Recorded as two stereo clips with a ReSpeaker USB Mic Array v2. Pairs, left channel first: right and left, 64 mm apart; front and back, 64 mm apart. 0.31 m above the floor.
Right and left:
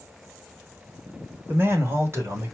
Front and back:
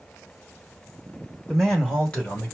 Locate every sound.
1.5 s a man speaking: 80° left, 1.5 m; by 2.5 s 60° left, 2 m